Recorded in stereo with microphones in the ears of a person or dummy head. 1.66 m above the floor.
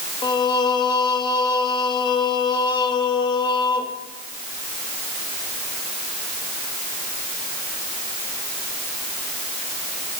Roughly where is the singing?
Left.